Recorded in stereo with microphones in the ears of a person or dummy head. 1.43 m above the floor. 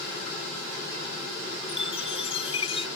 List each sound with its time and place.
1.7 s a chime: 35° left (ahead or behind)